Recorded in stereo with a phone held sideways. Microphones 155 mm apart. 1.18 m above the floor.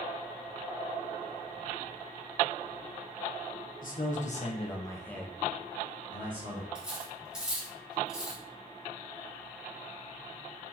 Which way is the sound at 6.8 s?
5° right (ahead or behind).